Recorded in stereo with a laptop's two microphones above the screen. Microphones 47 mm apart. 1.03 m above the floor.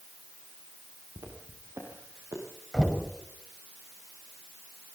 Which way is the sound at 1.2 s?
75° right (ahead or behind).